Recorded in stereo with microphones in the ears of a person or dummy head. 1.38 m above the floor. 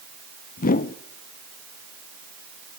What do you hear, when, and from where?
0.6 s a whoosh: 50° left (ahead or behind), 0.8 m